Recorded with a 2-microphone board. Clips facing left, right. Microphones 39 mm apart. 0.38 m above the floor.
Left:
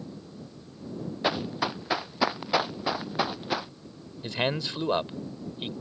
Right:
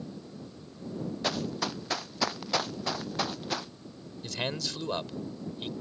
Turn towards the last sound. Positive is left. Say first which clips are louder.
# left 5 dB
turn(degrees=25)  # may be behind; listen again after turning